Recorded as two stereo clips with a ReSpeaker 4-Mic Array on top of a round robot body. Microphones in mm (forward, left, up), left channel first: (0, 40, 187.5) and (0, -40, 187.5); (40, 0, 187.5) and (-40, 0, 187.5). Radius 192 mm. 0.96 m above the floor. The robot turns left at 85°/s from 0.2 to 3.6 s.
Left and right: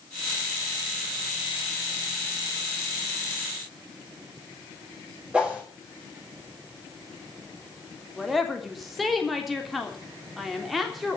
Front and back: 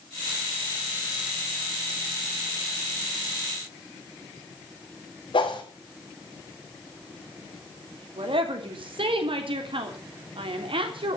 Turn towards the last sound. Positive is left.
turn(degrees=180)